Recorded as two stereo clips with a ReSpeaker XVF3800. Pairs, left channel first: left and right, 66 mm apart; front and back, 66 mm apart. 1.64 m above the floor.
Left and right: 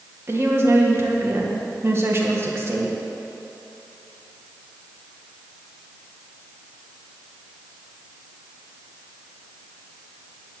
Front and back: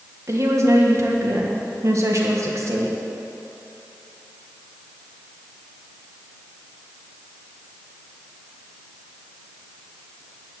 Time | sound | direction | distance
0.3 | a woman speaking | 140° right | 1.6 m